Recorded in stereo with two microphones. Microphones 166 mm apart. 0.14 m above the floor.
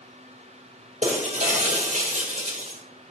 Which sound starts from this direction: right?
Breaking glass, at 1.0 s.